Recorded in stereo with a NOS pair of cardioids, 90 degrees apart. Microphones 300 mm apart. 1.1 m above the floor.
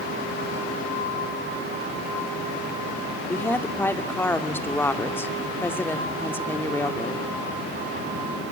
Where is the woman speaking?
5° left, 2.5 m.